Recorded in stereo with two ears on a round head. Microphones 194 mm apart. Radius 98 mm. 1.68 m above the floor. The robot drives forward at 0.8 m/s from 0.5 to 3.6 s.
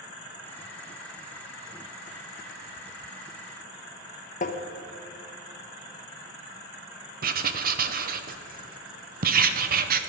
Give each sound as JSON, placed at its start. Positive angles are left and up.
{"t": 4.4, "sound": "tapping", "side_deg": 35, "distance_m": 1.1}
{"t": 7.2, "sound": "writing", "side_deg": -45, "distance_m": 0.9}